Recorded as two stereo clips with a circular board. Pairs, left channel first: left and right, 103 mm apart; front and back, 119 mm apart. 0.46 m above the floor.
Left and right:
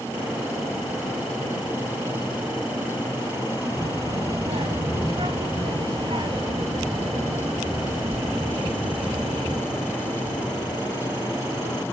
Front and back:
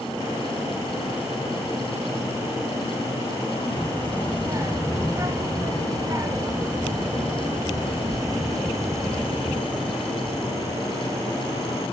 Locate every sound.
3.8 s a child speaking: 115° right, 1.4 m